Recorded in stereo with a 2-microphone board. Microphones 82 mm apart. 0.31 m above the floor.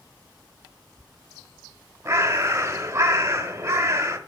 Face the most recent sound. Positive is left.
turn(degrees=-35)  # may be behind; listen again after turning